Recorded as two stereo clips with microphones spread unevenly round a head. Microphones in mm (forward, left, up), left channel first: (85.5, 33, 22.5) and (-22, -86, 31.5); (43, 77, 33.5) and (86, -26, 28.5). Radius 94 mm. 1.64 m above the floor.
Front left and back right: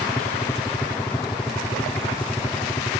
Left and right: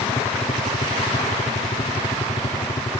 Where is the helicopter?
115° left; by 3.0 s 105° left.